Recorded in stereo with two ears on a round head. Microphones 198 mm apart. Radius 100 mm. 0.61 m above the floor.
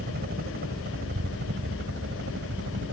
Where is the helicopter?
40° right (ahead or behind); by 2.9 s 50° right (ahead or behind).